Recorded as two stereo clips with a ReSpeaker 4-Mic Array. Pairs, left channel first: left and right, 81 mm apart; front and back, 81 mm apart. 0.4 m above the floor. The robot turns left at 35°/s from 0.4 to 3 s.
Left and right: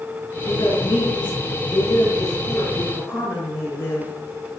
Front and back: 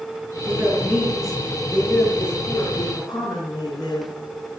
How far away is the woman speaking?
About 6 m.